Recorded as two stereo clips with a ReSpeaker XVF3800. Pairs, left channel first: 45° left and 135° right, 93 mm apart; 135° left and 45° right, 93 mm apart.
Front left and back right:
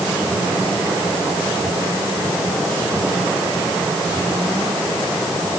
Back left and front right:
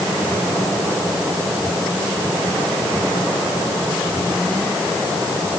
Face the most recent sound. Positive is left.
No sound to turn to.